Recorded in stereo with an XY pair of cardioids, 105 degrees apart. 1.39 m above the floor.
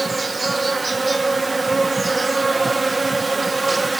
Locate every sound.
0.0 s an insect: 15° right